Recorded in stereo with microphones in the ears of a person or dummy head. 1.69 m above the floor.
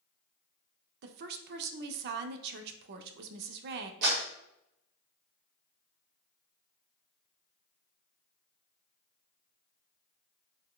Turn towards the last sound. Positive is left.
turn(degrees=-55)  # may be behind; listen again after turning